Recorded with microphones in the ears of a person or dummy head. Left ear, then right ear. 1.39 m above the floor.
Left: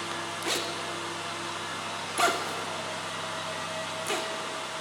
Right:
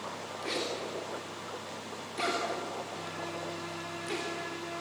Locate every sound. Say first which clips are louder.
0.4 s a zipper: left 2 dB; 40° left (ahead or behind), 2.5 m